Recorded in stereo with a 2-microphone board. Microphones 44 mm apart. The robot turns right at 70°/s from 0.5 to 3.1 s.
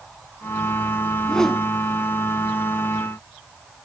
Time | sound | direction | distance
1.1 | a whoosh | 145° left | 0.9 m